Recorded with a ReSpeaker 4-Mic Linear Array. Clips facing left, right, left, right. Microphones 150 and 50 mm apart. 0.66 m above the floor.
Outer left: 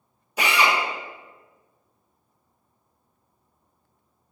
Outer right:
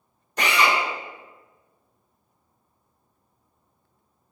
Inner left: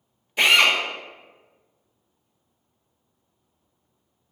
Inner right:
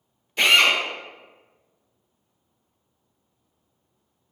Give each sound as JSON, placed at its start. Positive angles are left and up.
{"t": 0.4, "sound": "a drill", "side_deg": 5, "distance_m": 0.9}